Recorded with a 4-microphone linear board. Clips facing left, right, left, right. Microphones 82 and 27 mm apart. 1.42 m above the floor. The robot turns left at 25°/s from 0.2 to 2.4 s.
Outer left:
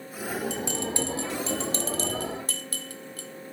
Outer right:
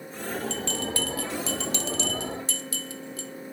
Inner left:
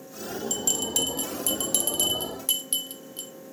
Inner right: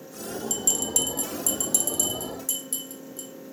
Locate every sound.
0.5 s a bell: 10° left (ahead or behind), 0.8 m; by 3.5 s 50° left (ahead or behind), 0.8 m